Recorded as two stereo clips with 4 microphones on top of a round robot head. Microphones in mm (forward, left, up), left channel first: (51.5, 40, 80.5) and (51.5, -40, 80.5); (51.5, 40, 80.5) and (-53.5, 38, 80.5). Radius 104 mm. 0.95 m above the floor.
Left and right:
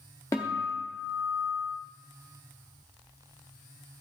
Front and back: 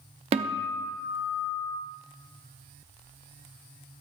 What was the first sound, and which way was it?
A guitar, 155° left.